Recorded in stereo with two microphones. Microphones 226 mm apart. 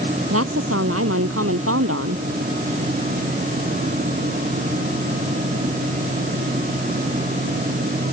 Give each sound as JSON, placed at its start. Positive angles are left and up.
{"t": 0.3, "sound": "a woman speaking", "side_deg": -70}